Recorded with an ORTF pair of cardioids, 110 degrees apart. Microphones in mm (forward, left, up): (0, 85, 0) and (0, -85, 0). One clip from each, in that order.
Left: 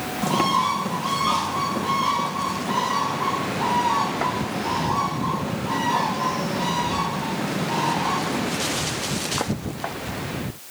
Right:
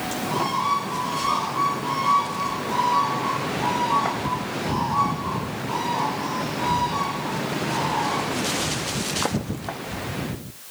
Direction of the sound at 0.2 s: 60° left.